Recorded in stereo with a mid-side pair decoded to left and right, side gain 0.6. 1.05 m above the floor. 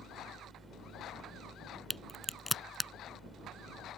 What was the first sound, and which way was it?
A fan, 20° right.